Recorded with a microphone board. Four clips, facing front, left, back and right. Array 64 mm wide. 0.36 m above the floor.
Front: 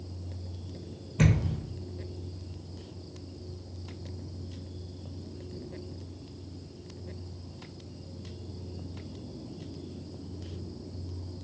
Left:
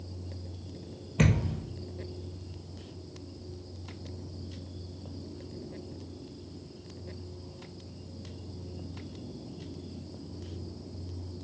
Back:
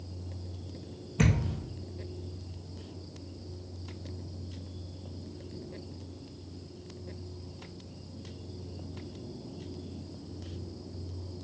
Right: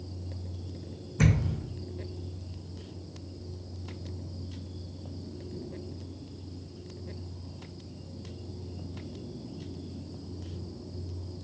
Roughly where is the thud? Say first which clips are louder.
Even, front 2 dB; left.